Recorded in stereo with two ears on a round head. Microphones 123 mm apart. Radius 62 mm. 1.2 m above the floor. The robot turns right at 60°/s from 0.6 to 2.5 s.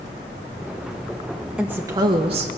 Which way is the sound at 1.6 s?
175° right.